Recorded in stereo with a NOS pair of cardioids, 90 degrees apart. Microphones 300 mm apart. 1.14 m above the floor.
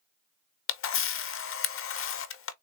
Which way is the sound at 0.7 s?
45° left.